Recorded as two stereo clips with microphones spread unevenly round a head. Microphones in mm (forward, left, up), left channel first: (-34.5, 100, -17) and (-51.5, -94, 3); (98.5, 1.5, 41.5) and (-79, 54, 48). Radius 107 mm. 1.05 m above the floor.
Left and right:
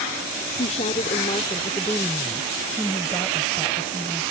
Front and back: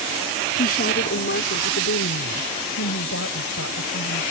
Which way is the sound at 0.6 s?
25° left.